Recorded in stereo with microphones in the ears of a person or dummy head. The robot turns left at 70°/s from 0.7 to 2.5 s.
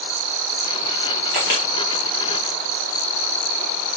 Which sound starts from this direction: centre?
A camera shutter, at 1.3 s.